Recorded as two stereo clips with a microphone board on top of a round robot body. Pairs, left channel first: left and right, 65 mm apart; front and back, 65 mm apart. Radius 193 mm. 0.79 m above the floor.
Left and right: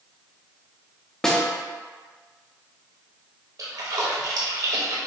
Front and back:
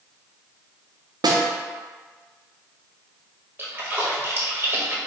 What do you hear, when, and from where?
1.2 s a snare drum: 170° left, 0.5 m
3.6 s a splash: 120° right, 1.2 m